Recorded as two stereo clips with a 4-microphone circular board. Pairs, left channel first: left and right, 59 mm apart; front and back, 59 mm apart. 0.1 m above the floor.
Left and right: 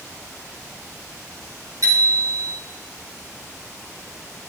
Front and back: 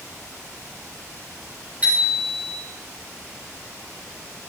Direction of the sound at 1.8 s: 115° right.